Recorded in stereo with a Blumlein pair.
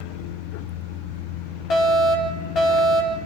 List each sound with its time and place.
1.7 s a fire alarm: 30° left, 4.5 m